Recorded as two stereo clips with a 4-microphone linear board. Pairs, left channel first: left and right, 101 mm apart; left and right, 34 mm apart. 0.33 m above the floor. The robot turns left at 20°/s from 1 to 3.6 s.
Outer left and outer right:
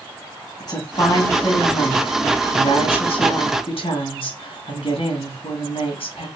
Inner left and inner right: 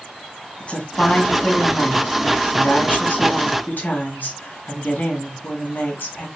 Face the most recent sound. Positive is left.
turn(degrees=80)